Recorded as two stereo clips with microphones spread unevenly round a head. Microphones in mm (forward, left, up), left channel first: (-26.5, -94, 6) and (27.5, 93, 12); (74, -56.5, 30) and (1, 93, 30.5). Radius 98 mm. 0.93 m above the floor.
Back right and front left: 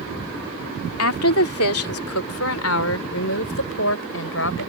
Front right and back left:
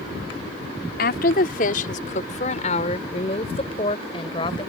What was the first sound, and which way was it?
A woman speaking, 100° right.